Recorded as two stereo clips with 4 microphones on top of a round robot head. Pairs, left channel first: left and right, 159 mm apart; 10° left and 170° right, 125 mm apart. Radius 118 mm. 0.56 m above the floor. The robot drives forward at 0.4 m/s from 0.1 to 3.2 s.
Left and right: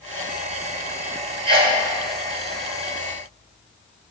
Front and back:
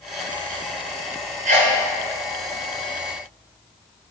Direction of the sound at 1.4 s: 150° right.